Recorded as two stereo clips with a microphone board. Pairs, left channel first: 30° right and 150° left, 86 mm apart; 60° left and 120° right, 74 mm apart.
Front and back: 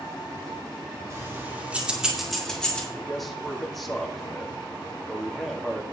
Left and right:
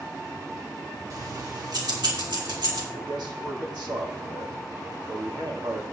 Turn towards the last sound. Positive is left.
turn(degrees=-120)